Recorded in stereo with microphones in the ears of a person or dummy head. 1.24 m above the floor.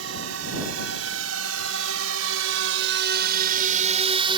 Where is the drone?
75° right (ahead or behind); by 4.4 s 25° right (ahead or behind).